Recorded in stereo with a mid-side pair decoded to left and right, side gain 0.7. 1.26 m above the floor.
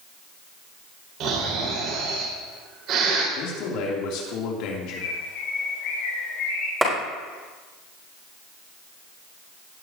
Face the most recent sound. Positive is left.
turn(degrees=-5)